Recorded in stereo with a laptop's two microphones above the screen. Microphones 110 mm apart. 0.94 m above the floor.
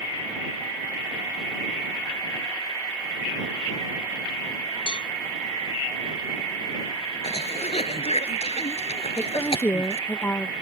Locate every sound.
4.9 s a cowbell: 55° left (ahead or behind)
7.2 s a cough: 65° left (ahead or behind)
9.2 s a woman speaking: 20° left (ahead or behind)